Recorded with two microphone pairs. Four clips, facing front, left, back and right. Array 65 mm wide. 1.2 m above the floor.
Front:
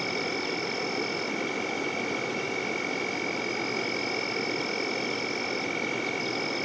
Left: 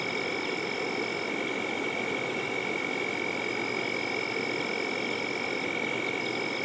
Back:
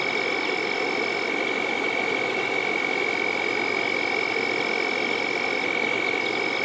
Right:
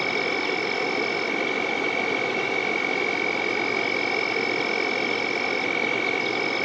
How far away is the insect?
About 1.0 m.